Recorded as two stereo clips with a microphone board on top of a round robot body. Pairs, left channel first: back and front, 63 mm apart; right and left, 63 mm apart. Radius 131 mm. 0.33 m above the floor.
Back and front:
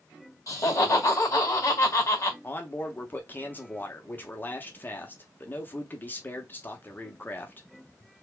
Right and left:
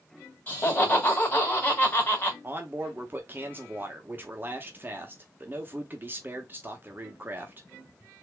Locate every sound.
0.5 s laughter: 145° right, 2.5 m
2.4 s a man speaking: 135° left, 1.1 m